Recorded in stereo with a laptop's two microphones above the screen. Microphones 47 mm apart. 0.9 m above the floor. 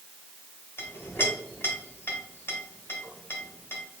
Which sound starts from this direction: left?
A clink, at 0.8 s.